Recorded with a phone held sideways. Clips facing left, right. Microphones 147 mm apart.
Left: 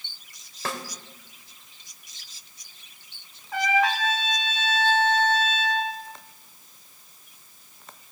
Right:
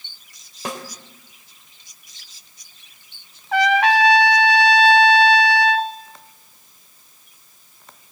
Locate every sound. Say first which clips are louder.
0.7 s a snare drum: right 3 dB; 15° right (ahead or behind), 3 m
3.5 s a trumpet: right 7 dB; 75° right (ahead or behind), 1.1 m